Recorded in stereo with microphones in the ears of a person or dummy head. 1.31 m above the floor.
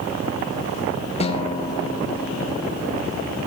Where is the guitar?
35° left (ahead or behind), 1.2 m.